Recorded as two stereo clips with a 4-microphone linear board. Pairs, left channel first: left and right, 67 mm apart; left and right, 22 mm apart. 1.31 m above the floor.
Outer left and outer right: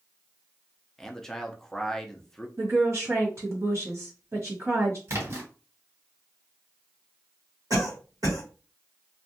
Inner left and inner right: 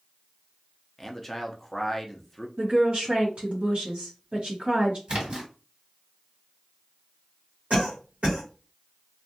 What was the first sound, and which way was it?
A man speaking, 5° left (ahead or behind).